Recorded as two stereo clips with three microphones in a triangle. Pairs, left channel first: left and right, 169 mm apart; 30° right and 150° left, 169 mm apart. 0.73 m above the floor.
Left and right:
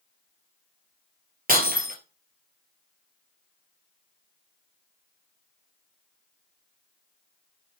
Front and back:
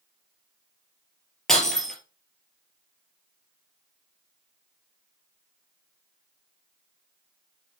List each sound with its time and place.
1.5 s breaking glass: 115° right, 3 m